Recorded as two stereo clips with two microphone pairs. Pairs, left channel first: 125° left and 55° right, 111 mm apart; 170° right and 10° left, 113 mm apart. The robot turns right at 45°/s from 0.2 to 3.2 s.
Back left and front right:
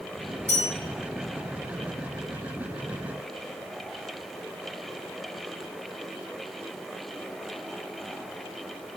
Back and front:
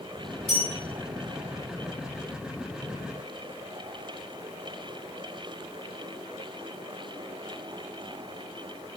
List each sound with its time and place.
0.5 s a bell: 90° right, 1.2 m; by 0.7 s 80° right, 1.2 m